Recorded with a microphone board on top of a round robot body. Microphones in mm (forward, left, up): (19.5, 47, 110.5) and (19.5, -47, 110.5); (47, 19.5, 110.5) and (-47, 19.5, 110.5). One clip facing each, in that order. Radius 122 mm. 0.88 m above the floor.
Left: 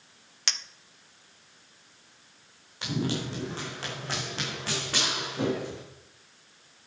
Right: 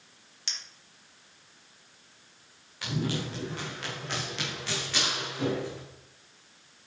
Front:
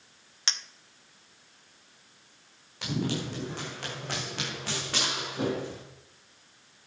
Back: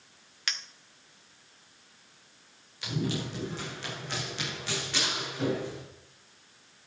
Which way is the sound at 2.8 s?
25° left.